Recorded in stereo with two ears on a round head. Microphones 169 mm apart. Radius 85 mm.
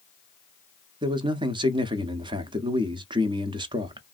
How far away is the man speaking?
About 0.6 m.